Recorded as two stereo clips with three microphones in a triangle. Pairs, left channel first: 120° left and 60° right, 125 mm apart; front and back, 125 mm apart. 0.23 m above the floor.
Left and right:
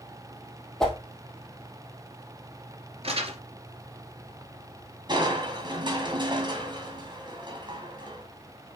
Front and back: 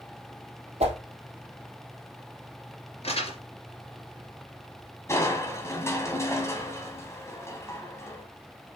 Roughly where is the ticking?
No ticking in this recording.